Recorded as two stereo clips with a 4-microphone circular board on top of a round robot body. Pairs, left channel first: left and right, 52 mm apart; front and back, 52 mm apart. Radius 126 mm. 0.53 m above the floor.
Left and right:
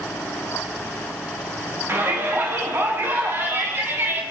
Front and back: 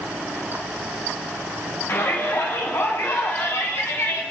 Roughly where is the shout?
Ahead right.